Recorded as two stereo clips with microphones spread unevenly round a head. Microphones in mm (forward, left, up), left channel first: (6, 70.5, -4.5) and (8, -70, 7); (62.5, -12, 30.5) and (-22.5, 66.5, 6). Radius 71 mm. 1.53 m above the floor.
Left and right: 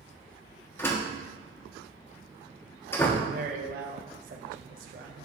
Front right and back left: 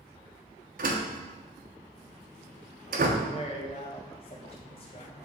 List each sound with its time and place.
0.8 s a door slam: 165° left, 1.1 m
3.2 s a man speaking: 80° right, 0.9 m